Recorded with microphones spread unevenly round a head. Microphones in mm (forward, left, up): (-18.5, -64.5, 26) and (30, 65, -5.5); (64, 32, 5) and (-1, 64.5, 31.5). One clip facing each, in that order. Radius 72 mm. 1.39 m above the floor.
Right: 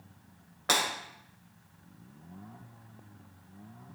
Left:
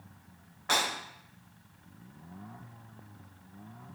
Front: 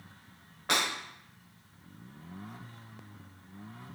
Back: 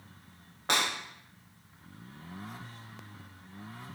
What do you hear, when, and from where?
0.7 s breaking glass: 135° right, 4 m